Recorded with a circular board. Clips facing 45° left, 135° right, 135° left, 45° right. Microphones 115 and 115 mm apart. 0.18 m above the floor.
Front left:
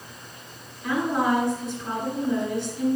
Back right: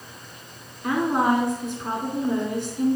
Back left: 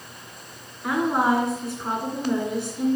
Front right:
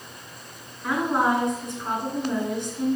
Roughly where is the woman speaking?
Behind right.